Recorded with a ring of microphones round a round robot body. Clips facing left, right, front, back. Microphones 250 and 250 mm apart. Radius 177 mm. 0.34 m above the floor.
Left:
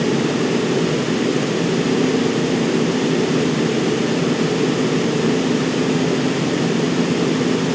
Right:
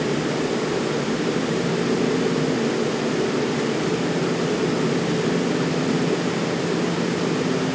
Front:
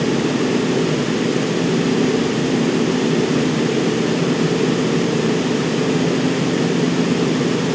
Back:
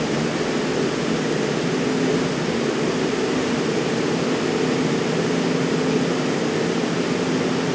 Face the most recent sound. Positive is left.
No sound to turn to.